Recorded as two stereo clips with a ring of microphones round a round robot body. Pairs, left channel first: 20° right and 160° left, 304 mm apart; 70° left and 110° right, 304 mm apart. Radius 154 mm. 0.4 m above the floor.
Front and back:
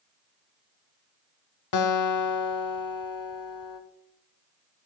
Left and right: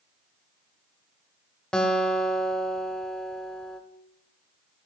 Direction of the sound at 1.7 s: 20° right.